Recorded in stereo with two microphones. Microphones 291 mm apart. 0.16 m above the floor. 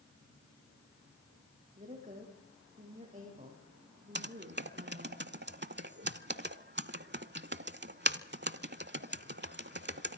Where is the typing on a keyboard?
40° right (ahead or behind), 0.7 m.